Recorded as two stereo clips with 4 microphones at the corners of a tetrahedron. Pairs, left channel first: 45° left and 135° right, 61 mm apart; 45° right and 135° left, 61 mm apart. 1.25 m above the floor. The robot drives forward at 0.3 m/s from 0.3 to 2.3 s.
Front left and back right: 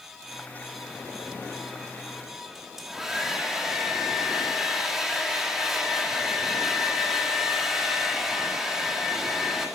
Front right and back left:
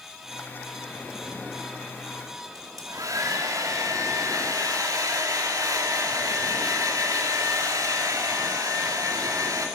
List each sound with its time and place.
2.5 s a hair dryer: 140° left, 2.5 m